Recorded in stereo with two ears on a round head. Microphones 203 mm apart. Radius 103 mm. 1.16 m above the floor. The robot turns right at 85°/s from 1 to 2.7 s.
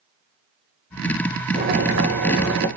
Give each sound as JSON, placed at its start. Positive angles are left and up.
{"t": 1.5, "sound": "boiling", "azimuth_deg": -145, "distance_m": 4.0}